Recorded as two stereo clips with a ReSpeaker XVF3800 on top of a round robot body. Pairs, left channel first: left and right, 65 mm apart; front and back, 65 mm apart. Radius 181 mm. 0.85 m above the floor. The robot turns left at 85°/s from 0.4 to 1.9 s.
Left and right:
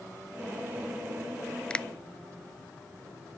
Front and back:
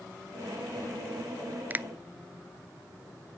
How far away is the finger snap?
About 0.5 m.